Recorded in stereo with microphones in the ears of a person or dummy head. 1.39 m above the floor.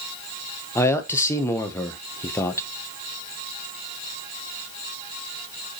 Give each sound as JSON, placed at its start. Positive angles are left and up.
{"t": 0.8, "sound": "a man speaking", "side_deg": 15, "distance_m": 0.9}